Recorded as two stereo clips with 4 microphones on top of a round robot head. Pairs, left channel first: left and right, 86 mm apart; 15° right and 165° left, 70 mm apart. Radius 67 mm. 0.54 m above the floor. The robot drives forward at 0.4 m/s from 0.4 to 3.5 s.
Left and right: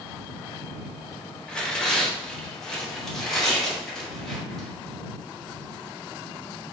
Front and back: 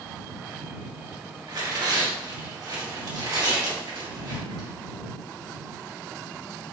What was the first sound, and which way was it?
Tearing paper, 170° left.